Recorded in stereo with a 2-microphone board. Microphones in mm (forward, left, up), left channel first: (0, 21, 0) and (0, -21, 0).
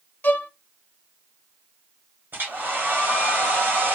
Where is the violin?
50° left (ahead or behind), 0.5 m.